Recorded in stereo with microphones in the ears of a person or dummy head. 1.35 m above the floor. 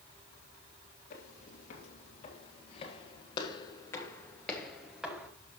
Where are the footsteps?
60° left (ahead or behind), 2.5 m; by 5.3 s 5° right (ahead or behind), 1.5 m.